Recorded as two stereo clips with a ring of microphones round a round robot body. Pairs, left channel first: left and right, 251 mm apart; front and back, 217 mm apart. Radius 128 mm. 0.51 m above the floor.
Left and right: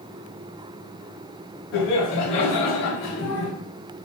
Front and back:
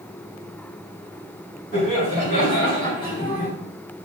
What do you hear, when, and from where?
1.7 s laughter: 50° left, 2 m; by 3.5 s 75° left, 1.4 m